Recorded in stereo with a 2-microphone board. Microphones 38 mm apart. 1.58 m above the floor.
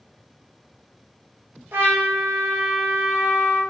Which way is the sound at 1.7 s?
75° right (ahead or behind).